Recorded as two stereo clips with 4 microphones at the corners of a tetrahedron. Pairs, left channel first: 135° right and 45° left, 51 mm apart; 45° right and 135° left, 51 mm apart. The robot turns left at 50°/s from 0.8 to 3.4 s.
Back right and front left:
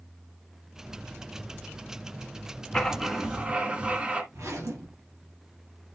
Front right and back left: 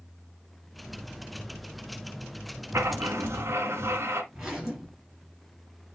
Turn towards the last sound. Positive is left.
turn(degrees=55)